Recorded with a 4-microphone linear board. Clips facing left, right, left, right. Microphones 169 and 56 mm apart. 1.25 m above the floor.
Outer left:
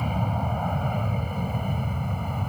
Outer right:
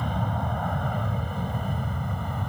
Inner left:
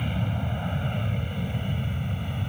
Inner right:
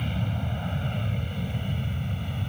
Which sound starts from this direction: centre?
An aircraft, at 0.0 s.